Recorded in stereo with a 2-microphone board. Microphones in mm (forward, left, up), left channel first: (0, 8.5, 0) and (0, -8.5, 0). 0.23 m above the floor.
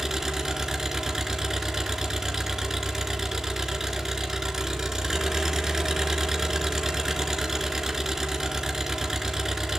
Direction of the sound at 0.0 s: 25° right (ahead or behind).